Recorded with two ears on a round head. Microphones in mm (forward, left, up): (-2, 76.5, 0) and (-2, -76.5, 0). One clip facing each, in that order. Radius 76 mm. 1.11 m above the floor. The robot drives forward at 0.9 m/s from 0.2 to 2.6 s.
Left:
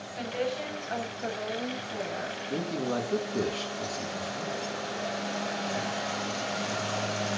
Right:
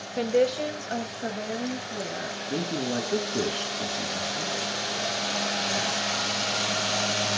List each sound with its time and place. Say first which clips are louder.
0.2 s a woman speaking: right 9 dB; 60° right (ahead or behind), 0.7 m; by 2.4 s 15° right (ahead or behind), 2.5 m
2.5 s a man speaking: right 2 dB; 5° right (ahead or behind), 1.4 m